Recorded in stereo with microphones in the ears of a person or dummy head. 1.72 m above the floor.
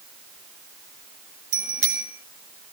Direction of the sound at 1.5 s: 40° right (ahead or behind).